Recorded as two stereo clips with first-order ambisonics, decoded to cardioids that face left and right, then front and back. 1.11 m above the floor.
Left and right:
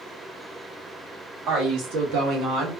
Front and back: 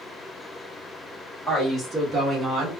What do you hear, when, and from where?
1.5 s a woman speaking: 80° right, 1.8 m; by 2.7 s 130° right, 1.0 m